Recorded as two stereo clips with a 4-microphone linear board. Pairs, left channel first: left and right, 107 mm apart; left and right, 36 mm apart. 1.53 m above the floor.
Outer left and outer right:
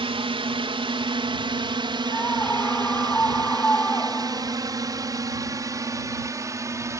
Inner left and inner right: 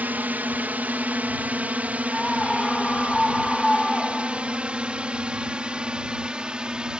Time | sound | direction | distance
0.0 | a drone | 60° right (ahead or behind) | ?
2.1 | a scream | 20° left (ahead or behind) | ?